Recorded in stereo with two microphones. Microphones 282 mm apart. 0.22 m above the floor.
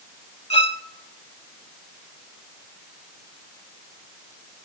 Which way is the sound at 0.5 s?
20° left (ahead or behind).